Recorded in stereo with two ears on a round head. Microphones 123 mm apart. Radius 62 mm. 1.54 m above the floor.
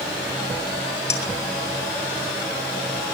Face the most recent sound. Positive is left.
turn(degrees=20)  # may be behind; listen again after turning